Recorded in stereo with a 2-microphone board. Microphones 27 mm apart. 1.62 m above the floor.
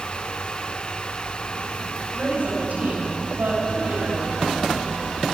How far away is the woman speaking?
About 10 m.